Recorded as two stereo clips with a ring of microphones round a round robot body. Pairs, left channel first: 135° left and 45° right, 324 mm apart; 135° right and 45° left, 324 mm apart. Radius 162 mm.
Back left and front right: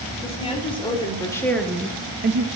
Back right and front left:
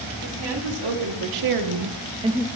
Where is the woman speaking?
60° left, 3 m; by 2.5 s 55° right, 0.8 m.